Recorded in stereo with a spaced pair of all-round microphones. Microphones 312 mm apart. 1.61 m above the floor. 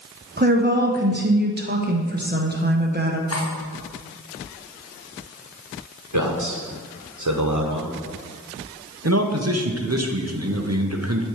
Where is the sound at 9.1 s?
50° right (ahead or behind), 0.9 m.